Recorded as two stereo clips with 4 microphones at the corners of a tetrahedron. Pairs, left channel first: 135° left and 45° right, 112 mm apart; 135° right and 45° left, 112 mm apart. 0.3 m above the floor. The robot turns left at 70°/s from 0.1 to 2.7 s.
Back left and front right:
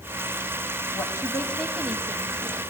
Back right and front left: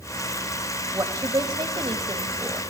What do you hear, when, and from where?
0.9 s a woman speaking: 100° left, 1.5 m; by 2.6 s 20° right, 1.5 m